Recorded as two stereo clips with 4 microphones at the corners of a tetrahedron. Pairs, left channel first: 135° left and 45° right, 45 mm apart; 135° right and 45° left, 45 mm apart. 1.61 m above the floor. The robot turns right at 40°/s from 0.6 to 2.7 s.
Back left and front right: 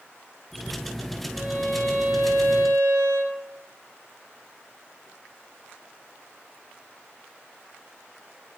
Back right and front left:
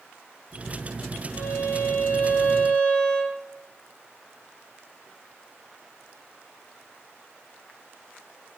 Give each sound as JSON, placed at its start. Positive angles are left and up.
{"t": 1.3, "sound": "a violin", "azimuth_deg": -120, "distance_m": 0.5}